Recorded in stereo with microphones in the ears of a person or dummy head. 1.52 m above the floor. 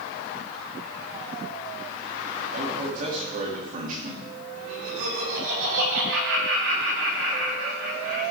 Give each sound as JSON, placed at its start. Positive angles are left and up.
{"t": 2.5, "sound": "a man speaking", "side_deg": -50, "distance_m": 2.5}
{"t": 4.5, "sound": "laughter", "side_deg": -85, "distance_m": 4.0}